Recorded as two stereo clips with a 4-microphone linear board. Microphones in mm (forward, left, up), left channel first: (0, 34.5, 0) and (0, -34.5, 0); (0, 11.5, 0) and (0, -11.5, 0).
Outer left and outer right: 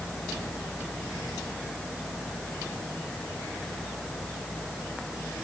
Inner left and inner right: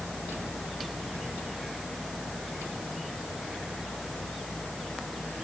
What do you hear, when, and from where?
Only background noise.